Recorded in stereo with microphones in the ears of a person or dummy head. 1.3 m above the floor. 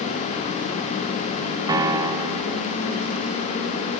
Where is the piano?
25° right (ahead or behind), 1.1 m.